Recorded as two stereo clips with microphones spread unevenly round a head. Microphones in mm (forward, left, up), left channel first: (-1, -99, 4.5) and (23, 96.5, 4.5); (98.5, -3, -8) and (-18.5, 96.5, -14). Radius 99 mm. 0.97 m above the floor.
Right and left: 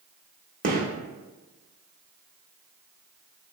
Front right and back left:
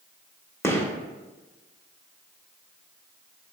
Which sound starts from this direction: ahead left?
A gunshot, at 0.6 s.